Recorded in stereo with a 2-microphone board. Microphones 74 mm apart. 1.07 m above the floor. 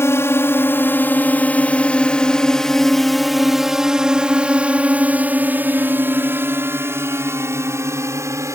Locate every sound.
0.0 s a drone: 40° left (ahead or behind); by 8.6 s 45° right (ahead or behind)